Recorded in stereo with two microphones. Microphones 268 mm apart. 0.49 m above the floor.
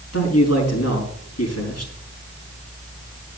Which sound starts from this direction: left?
A man speaking, at 0.1 s.